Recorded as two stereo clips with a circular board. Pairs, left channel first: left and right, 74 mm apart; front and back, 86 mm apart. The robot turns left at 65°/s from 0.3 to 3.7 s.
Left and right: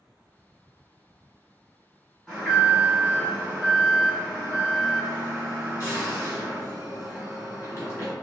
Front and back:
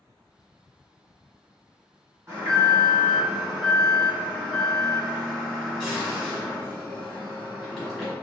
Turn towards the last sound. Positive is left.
turn(degrees=90)